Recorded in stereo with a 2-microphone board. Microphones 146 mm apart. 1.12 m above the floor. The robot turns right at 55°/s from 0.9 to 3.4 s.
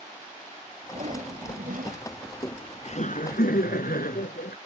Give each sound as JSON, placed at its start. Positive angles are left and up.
{"t": 0.9, "sound": "a whoosh", "azimuth_deg": -130}
{"t": 2.2, "sound": "laughter", "azimuth_deg": 15}